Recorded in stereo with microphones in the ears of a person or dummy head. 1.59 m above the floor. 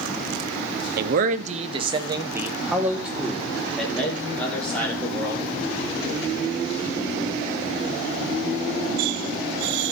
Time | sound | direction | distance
1.0 | a man speaking | 65° right (ahead or behind) | 1.1 m